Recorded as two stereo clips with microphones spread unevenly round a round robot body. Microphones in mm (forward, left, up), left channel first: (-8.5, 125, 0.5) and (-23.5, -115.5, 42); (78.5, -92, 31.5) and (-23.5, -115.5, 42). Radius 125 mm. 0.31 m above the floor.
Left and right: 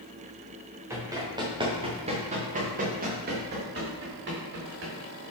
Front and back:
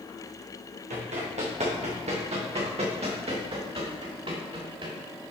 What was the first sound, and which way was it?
Running footsteps, 170° right.